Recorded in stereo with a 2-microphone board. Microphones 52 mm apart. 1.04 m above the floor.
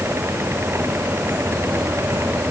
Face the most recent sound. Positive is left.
No sound to turn to.